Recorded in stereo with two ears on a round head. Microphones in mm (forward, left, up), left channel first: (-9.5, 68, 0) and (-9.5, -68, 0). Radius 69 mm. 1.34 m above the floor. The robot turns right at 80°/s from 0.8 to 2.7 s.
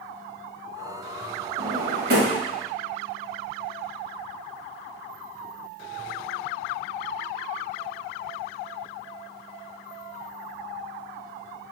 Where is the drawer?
45° right (ahead or behind), 1.6 m; by 2.4 s 65° right (ahead or behind), 1.6 m.